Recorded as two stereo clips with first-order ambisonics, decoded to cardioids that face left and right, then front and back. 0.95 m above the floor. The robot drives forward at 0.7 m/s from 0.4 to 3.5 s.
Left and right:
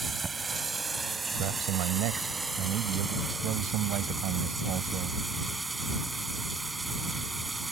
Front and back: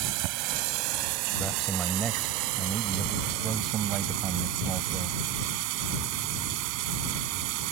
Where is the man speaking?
105° right; by 5.2 s 120° right.